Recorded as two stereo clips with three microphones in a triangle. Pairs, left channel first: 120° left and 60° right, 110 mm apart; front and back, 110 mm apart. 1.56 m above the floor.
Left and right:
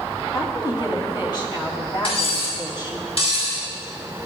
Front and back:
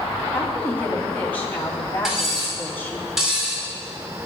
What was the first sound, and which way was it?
A woman speaking, 75° left.